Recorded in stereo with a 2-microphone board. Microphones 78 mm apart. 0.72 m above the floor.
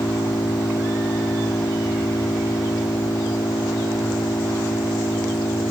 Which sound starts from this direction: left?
An engine running, at 0.0 s.